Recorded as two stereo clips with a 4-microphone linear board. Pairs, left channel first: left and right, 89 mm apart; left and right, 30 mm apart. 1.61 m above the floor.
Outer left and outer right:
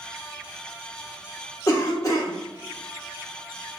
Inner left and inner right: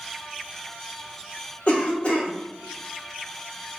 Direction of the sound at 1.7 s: 40° left (ahead or behind).